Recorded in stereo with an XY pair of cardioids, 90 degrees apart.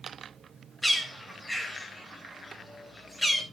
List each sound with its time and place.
0.8 s a bird: 10° left, 3 m